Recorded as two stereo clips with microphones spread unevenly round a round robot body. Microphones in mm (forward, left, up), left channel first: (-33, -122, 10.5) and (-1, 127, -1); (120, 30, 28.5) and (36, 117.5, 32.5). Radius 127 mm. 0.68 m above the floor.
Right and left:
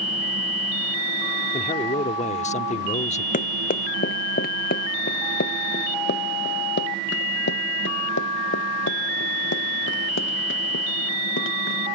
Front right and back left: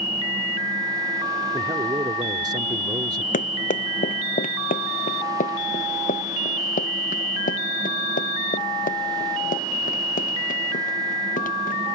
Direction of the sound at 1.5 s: 160° right.